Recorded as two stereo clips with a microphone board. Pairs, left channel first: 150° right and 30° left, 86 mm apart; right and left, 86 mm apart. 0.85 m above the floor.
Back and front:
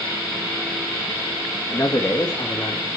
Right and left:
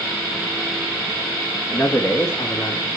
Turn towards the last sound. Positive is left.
turn(degrees=-120)